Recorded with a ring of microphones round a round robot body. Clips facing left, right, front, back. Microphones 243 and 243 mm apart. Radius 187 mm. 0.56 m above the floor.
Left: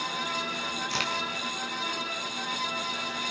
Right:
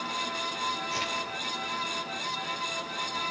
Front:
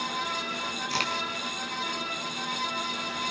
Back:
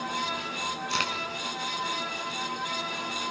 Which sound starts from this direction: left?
A crack, at 0.9 s.